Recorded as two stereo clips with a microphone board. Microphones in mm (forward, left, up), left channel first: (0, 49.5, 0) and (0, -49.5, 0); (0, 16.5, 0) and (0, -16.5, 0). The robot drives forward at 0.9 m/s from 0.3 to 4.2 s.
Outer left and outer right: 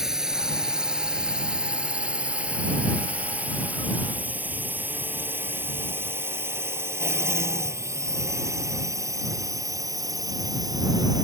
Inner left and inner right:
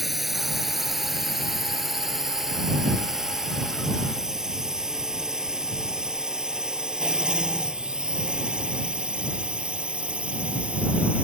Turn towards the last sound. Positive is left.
turn(degrees=-40)  # may be behind; listen again after turning